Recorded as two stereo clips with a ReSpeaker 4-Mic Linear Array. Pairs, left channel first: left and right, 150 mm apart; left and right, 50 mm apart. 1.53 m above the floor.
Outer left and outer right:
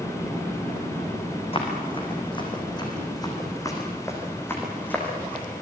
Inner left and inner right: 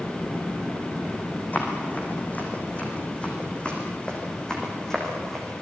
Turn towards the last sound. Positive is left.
turn(degrees=5)  # may be behind; listen again after turning